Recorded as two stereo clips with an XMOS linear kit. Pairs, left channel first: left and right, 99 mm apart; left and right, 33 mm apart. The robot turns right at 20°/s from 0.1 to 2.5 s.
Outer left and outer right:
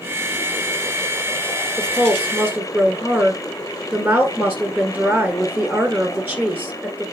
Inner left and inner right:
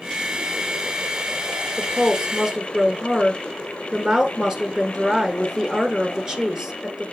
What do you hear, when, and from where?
1.8 s a woman speaking: 30° right (ahead or behind), 1.4 m; by 7.0 s 25° right (ahead or behind), 1.4 m